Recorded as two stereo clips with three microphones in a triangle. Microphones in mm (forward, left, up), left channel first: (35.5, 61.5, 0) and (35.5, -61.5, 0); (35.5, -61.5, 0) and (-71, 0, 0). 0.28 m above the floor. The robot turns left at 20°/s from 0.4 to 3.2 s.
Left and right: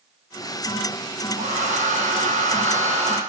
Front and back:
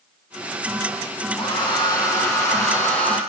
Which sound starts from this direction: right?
A hair dryer, at 1.4 s.